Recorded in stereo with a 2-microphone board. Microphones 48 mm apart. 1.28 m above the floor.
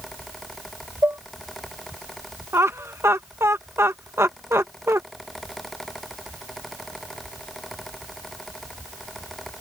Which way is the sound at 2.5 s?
75° right (ahead or behind).